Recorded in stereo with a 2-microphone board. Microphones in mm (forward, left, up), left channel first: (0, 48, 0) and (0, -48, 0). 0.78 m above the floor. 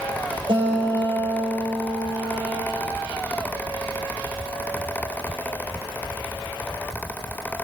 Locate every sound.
0.5 s a guitar: 75° right (ahead or behind), 4 m